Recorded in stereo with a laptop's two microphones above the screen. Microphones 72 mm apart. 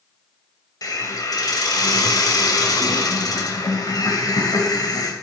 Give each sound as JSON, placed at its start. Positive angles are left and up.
{"t": 0.8, "sound": "a hiss", "side_deg": 65, "distance_m": 2.0}